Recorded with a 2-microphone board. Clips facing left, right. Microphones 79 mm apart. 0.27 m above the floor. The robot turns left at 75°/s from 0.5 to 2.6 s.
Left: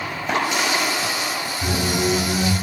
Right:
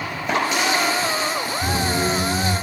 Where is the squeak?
160° left, 1.3 m; by 2.5 s 90° left, 1.3 m.